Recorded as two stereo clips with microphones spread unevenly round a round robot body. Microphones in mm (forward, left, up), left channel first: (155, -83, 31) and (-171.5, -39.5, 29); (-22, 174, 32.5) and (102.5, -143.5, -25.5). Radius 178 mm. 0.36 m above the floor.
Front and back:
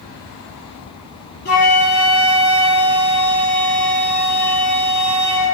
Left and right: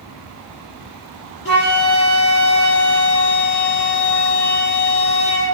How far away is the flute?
About 8.5 m.